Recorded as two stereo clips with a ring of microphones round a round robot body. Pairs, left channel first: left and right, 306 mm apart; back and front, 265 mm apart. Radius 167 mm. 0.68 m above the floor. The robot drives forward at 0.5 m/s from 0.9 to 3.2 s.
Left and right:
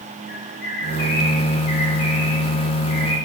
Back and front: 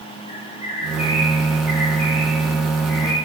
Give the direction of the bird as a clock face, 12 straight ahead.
8 o'clock.